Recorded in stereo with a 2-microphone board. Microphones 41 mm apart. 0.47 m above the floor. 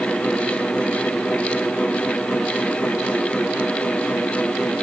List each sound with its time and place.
Only background noise.